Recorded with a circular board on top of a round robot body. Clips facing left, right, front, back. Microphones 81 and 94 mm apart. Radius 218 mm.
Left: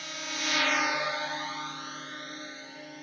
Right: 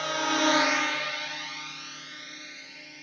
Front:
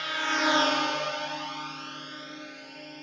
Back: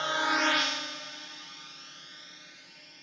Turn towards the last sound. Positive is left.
turn(degrees=35)